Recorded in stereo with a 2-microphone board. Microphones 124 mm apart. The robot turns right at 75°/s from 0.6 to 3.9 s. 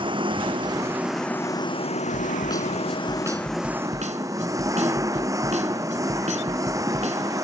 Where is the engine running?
40° right; by 7.4 s 155° right.